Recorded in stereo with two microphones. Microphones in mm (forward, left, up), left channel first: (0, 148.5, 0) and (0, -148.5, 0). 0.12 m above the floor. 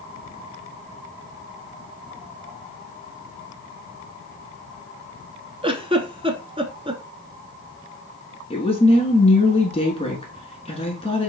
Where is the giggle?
20° right (ahead or behind), 0.6 m.